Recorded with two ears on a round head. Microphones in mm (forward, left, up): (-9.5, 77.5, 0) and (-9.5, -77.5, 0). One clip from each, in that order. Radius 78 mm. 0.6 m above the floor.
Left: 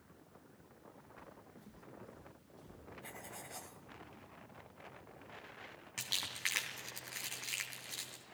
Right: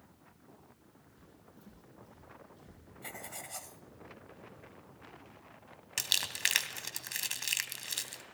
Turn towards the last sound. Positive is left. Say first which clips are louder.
# right 7 dB
turn(degrees=-70)  # may be behind; listen again after turning